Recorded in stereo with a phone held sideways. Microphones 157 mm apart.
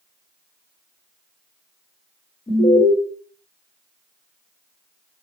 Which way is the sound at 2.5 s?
60° left (ahead or behind).